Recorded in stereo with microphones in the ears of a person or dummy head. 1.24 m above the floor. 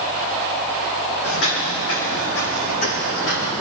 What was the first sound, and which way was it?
Footsteps, 70° left (ahead or behind).